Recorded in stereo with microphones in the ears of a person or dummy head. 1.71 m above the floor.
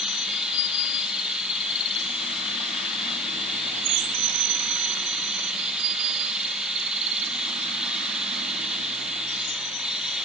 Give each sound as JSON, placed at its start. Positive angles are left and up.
{"t": 0.0, "sound": "running water", "side_deg": -5, "distance_m": 1.4}